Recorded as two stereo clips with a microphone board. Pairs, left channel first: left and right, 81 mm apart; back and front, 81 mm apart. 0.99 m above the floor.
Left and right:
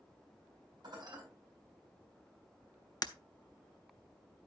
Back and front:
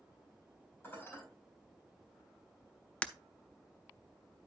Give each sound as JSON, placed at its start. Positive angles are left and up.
{"t": 0.8, "sound": "dishes clattering", "azimuth_deg": -120, "distance_m": 4.5}
{"t": 3.0, "sound": "breaking glass", "azimuth_deg": 110, "distance_m": 0.5}